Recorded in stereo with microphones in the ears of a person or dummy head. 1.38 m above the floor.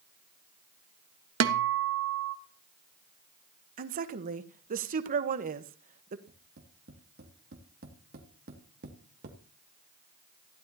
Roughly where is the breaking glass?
I don't hear breaking glass.